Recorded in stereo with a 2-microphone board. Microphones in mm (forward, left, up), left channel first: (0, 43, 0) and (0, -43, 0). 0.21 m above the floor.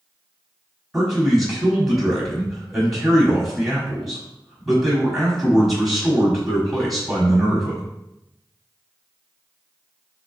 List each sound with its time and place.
0.9 s a man speaking: centre (ahead or behind), 1.3 m